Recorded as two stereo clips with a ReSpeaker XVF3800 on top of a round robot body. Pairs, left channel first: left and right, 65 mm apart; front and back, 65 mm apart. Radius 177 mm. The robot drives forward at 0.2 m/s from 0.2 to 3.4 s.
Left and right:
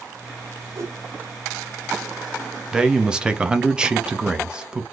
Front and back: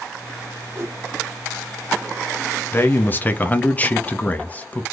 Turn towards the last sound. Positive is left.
turn(degrees=-30)